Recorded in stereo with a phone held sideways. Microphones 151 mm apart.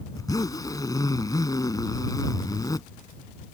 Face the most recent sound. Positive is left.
turn(degrees=25)  # may be behind; listen again after turning